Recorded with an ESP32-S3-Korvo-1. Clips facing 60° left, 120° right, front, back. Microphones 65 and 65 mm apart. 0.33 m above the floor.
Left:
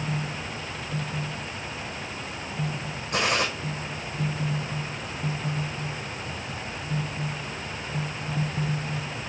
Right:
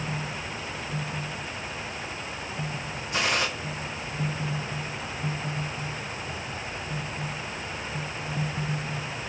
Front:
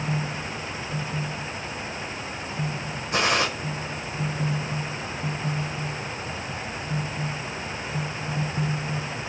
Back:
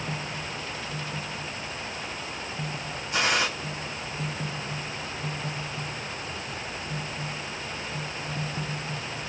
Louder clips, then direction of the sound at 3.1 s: Left 2 dB, front 2 dB; 25° left.